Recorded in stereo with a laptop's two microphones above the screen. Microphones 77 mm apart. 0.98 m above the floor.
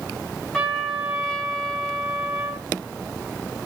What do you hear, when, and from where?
0.5 s a trumpet: 5° left (ahead or behind), 0.7 m